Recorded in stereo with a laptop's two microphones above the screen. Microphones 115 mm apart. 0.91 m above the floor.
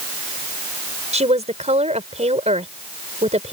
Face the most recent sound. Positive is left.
turn(degrees=-80)